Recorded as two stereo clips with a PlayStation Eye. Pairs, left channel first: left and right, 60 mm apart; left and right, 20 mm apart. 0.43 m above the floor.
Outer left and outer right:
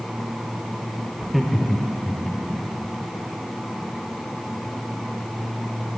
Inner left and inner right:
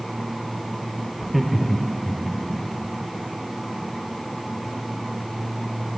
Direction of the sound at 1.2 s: 5° right (ahead or behind).